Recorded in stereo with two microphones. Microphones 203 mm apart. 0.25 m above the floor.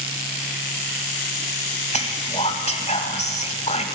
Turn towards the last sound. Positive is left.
turn(degrees=35)  # may be behind; listen again after turning